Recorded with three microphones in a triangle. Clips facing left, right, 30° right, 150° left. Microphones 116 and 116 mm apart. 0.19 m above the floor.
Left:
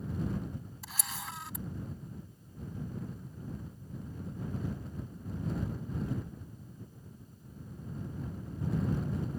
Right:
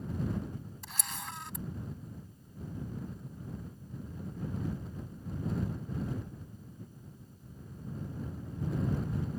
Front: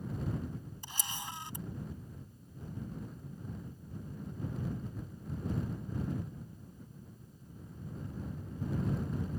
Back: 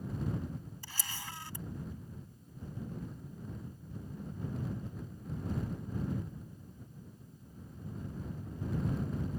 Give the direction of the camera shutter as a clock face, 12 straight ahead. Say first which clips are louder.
Left 1 dB, front 3 dB; 12 o'clock.